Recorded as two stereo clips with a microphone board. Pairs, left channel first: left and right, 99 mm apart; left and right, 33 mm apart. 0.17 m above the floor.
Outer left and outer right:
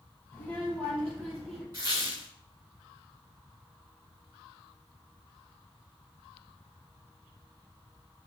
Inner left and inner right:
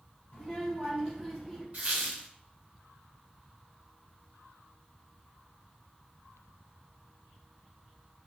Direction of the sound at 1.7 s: 35° right (ahead or behind).